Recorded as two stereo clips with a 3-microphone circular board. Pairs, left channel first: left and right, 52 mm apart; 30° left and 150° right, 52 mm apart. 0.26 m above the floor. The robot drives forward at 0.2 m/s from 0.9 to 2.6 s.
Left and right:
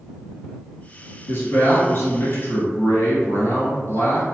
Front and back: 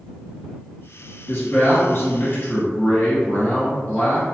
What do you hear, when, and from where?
1.3 s a man speaking: 65° left, 1.4 m; by 4.2 s 80° left, 1.4 m